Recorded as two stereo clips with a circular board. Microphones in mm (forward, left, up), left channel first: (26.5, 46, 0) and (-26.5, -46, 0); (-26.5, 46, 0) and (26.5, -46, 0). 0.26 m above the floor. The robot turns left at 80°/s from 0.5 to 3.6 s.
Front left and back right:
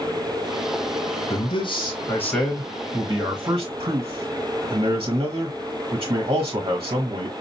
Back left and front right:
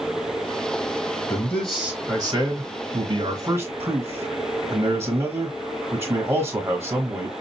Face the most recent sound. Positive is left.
turn(degrees=-120)